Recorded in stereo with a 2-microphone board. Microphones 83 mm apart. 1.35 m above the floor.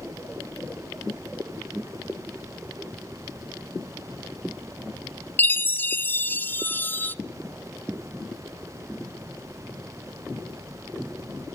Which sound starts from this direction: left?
A chime, at 5.4 s.